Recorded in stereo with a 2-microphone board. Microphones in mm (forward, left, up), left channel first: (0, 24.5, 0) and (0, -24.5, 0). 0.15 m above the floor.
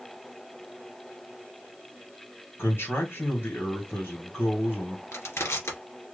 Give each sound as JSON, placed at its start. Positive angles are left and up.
{"t": 2.6, "sound": "a man speaking", "side_deg": 50, "distance_m": 3.0}
{"t": 5.1, "sound": "crushing", "side_deg": 60, "distance_m": 1.9}